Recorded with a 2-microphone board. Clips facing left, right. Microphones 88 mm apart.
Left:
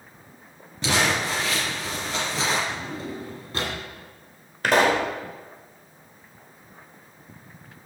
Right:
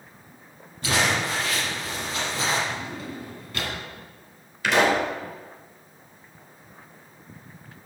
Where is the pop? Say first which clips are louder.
Left 1 dB; 45° left (ahead or behind), 1.6 m.